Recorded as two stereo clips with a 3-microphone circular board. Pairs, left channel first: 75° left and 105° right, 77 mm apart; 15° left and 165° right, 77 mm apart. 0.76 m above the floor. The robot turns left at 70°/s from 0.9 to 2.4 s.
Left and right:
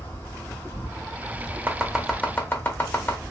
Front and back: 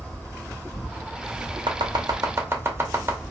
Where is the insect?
85° left, 1.9 m; by 3.3 s 20° right, 1.9 m.